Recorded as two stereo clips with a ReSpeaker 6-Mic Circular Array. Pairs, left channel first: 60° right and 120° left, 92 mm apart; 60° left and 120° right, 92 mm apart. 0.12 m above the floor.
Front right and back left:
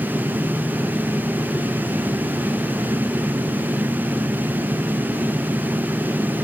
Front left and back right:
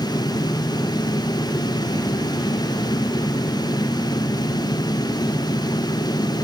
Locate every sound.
Only background noise.